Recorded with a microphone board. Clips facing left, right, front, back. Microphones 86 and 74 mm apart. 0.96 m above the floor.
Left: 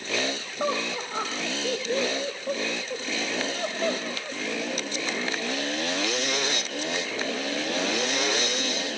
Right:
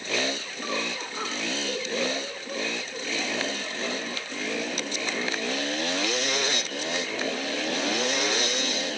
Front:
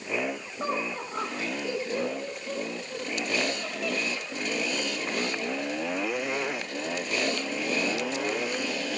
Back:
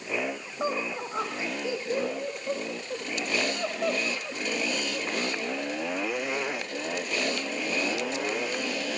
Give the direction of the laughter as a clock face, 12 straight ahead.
9 o'clock.